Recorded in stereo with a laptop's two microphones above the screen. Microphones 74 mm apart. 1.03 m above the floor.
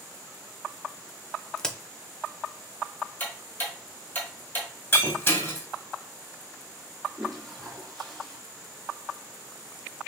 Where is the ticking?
25° left (ahead or behind), 1.2 m.